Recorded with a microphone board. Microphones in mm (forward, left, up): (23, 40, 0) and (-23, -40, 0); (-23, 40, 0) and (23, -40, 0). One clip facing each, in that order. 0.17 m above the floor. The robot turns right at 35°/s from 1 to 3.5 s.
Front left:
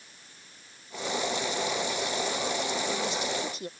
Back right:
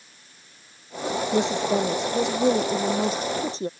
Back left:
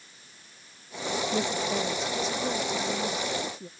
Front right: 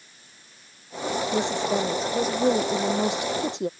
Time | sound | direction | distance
1.3 | a woman speaking | 135° right | ?